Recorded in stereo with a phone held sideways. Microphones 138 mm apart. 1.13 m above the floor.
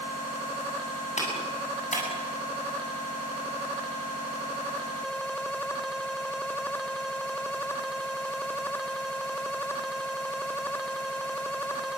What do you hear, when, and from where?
1.2 s a clap: 60° left (ahead or behind), 8.5 m